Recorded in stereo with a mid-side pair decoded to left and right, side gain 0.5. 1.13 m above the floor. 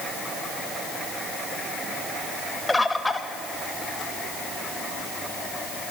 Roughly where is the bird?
Ahead.